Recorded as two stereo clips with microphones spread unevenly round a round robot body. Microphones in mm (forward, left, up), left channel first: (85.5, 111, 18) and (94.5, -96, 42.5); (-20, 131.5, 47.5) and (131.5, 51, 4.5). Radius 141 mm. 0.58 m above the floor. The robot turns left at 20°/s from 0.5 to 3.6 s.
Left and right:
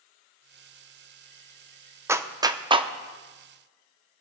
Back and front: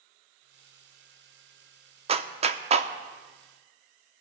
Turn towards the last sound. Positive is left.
turn(degrees=-35)